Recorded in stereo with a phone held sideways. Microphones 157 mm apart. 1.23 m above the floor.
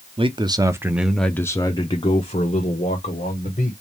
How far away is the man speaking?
About 0.7 m.